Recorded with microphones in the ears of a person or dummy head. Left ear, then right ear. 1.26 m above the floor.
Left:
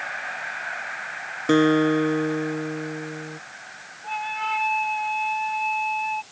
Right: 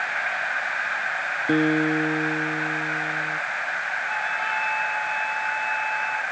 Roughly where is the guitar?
Left.